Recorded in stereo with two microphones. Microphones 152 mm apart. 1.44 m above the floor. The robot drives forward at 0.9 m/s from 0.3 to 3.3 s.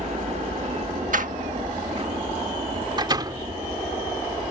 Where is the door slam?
60° right (ahead or behind); by 3.4 s 30° right (ahead or behind).